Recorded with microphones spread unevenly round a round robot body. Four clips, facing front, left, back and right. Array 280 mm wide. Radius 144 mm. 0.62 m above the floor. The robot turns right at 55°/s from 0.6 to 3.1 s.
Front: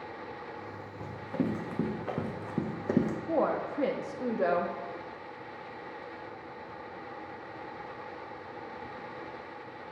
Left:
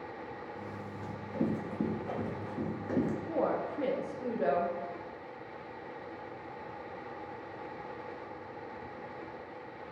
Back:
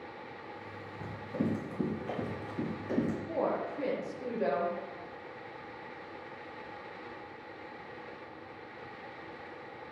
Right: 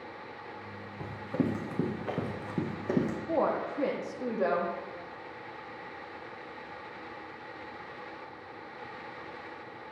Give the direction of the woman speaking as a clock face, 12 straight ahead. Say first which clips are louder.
Right 3 dB, front 3 dB; 1 o'clock.